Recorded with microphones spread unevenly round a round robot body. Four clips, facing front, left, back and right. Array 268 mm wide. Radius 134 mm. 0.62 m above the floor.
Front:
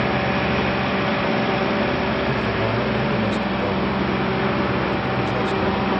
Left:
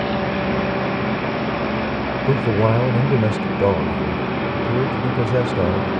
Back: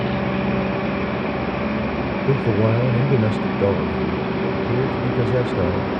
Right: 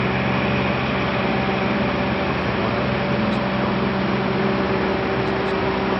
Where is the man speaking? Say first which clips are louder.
Left 4 dB, back 3 dB; 130° left.